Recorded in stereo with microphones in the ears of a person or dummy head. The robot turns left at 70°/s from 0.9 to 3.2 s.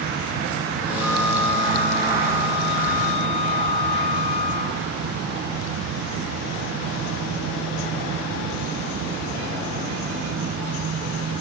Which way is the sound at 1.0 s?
160° right.